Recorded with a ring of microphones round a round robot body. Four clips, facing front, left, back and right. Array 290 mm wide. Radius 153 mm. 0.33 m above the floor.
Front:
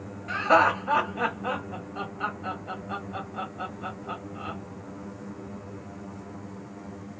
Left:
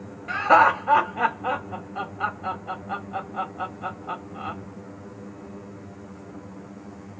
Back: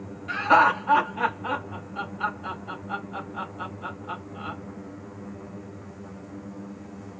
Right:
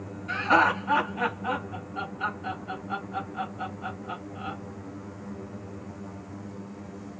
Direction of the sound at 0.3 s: 75° left.